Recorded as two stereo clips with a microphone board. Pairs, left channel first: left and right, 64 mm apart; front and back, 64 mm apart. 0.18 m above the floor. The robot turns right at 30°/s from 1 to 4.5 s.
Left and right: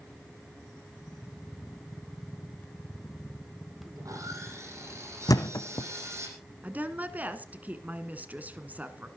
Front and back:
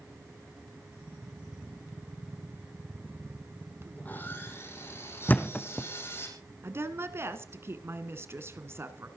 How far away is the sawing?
About 8 m.